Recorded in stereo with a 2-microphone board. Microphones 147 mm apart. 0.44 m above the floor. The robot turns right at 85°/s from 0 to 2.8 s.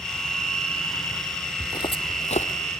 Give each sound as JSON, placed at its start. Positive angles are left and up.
{"t": 1.6, "sound": "footsteps", "side_deg": 20, "distance_m": 0.6}